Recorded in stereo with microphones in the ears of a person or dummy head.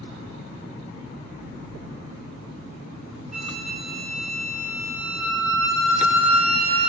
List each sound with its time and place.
3.3 s a flute: 40° right (ahead or behind), 0.6 m